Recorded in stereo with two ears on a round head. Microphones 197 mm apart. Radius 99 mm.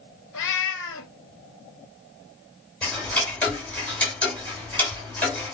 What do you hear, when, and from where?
0.3 s a cat meowing: 60° left (ahead or behind), 1.2 m
2.8 s ticking: 5° left (ahead or behind), 2.5 m